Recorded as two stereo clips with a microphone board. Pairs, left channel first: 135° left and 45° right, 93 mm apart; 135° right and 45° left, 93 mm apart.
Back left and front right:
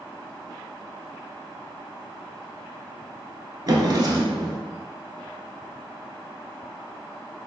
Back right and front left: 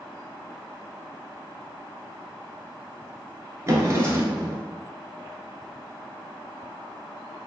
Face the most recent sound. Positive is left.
turn(degrees=-5)